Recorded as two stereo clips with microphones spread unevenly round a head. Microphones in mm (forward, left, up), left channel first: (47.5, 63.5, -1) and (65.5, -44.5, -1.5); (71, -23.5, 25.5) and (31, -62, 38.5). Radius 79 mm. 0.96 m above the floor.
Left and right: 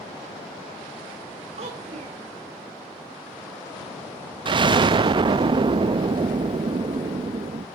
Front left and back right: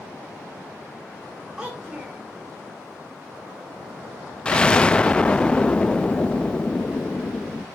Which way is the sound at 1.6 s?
60° right.